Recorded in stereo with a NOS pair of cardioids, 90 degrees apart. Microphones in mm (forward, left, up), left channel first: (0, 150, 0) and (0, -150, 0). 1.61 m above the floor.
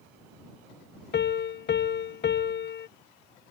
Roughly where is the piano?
Ahead left.